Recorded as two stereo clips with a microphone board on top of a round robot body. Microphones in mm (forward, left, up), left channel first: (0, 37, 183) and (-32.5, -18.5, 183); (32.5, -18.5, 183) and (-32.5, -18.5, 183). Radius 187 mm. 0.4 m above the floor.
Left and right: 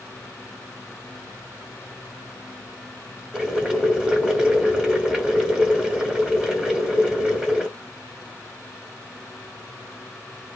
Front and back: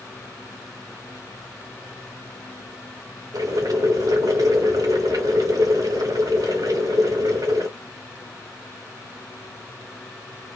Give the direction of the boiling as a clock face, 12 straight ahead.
7 o'clock.